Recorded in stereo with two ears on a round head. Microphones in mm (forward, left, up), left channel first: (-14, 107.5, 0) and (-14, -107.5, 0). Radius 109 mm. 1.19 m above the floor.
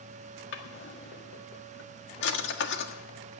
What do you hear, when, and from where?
0.5 s a drawer: 50° left (ahead or behind), 1.6 m